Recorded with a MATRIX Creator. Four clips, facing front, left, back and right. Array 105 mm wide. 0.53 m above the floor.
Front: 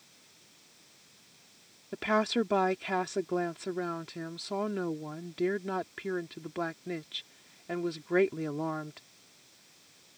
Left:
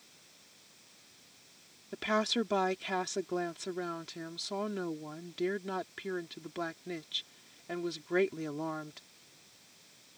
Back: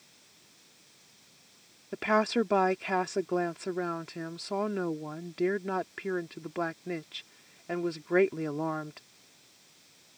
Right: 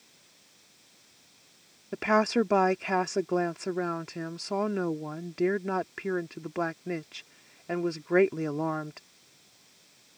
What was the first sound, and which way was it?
A woman speaking, 105° right.